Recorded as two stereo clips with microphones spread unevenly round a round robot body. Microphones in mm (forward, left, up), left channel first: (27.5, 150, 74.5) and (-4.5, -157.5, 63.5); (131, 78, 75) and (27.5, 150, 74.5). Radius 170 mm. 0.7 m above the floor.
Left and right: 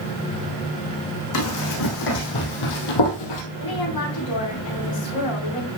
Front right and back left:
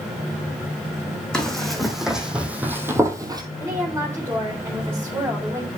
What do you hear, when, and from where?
1.3 s running footsteps: 50° left, 3 m; by 3.4 s 85° left, 1.9 m
3.6 s a woman speaking: 70° left, 4 m